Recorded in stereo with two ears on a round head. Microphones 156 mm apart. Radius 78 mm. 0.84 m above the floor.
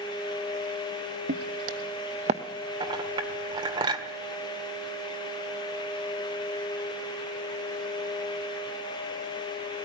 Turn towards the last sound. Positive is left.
turn(degrees=-30)  # may be behind; listen again after turning